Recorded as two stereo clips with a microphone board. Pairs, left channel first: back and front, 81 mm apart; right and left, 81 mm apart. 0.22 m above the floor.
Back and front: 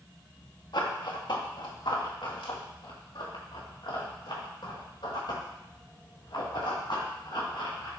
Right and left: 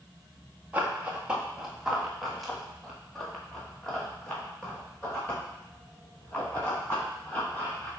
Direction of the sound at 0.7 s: 160° left.